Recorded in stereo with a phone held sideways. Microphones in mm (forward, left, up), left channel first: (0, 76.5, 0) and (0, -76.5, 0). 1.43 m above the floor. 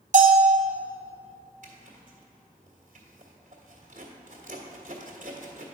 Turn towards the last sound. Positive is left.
turn(degrees=-55)  # may be behind; listen again after turning